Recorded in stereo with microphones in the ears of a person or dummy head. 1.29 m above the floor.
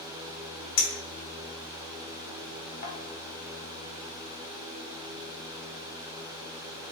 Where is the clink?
55° left (ahead or behind), 1.0 m.